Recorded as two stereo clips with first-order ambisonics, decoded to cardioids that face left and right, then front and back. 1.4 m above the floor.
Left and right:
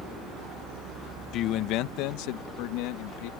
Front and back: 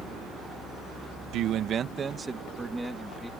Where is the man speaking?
140° left; by 3.3 s 90° left.